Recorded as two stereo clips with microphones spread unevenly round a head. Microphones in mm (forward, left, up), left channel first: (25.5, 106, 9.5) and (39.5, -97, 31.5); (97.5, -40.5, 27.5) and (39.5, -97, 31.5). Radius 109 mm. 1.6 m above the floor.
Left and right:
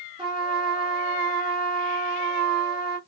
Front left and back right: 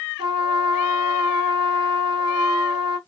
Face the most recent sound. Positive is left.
turn(degrees=-155)